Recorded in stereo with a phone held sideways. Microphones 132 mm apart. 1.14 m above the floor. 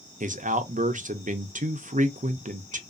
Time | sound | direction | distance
0.2 | a man speaking | 80° right | 0.5 m